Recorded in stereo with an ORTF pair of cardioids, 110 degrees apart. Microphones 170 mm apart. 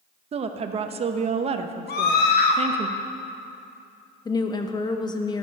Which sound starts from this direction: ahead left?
A woman speaking, at 4.2 s.